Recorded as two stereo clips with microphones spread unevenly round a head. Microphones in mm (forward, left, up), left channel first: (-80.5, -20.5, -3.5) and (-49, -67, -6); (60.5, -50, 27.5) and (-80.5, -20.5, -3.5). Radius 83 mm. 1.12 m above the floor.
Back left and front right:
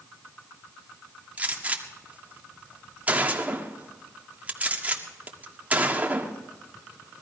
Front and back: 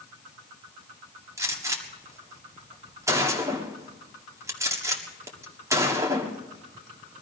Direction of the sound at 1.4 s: 120° right.